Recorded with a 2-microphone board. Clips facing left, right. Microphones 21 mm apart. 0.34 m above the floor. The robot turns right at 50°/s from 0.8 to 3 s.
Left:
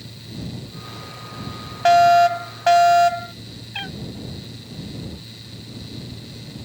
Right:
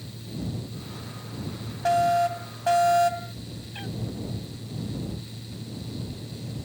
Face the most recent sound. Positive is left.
turn(degrees=55)  # may be behind; listen again after turning